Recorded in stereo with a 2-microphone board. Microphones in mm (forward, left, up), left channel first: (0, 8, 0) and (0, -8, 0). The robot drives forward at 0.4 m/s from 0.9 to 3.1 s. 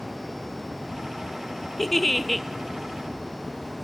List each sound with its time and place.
1.8 s a giggle: 10° left (ahead or behind), 1.4 m; by 2.5 s 15° left (ahead or behind), 1.2 m